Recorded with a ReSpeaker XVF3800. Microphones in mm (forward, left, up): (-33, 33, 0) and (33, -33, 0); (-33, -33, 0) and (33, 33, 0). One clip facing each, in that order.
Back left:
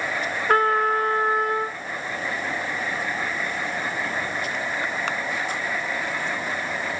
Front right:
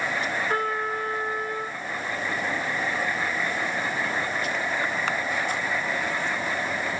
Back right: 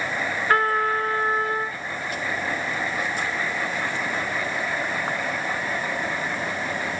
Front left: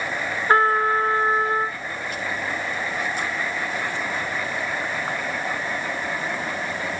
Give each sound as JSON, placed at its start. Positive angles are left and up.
{"t": 0.5, "sound": "a trumpet", "azimuth_deg": 110, "distance_m": 0.9}